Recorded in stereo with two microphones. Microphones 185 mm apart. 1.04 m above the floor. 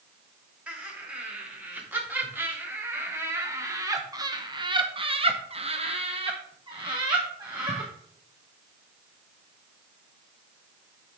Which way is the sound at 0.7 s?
5° right (ahead or behind).